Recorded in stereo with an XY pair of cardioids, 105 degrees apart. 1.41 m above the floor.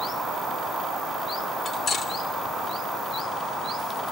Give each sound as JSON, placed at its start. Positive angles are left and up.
{"t": 1.6, "sound": "cutlery clinking", "azimuth_deg": 60, "distance_m": 3.0}